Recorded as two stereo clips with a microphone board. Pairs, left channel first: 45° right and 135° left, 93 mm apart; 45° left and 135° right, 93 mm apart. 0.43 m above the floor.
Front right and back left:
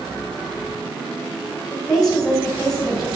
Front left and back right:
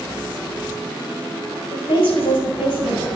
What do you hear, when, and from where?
1.7 s a woman speaking: 40° left, 3 m